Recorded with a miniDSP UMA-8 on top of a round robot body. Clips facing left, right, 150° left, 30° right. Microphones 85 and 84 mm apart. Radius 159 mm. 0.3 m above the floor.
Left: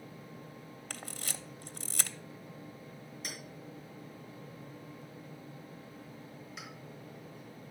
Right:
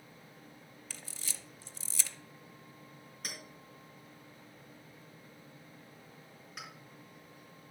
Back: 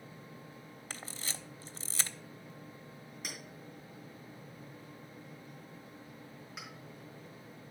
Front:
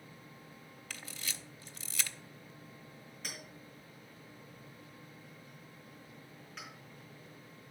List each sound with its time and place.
0.9 s a camera shutter: 100° left, 0.6 m
3.2 s a clink: 130° right, 4 m